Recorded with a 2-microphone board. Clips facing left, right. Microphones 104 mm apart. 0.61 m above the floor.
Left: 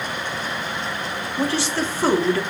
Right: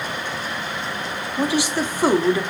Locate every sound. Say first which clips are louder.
1.4 s a woman speaking: right 2 dB; 15° right (ahead or behind), 0.8 m